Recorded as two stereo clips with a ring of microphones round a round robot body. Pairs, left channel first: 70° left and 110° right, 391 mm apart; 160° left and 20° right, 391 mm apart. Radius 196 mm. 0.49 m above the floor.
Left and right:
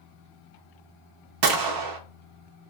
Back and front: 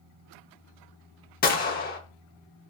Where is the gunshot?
140° right, 0.5 m.